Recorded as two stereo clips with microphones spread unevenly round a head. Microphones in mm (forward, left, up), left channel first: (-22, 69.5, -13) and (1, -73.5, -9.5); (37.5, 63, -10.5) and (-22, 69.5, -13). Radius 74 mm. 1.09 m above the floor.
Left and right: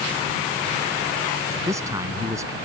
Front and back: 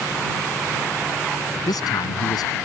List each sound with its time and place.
1.7 s a man speaking: 10° right